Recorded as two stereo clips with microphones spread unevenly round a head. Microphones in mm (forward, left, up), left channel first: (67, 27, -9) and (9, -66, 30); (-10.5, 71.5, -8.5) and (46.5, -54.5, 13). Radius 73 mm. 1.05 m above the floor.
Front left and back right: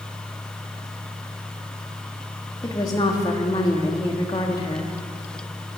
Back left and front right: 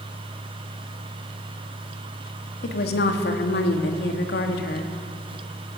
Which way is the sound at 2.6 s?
120° left.